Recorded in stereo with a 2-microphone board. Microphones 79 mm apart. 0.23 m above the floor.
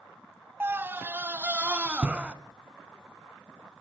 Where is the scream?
30° right (ahead or behind), 1.2 m; by 2.3 s 15° right (ahead or behind), 1.9 m.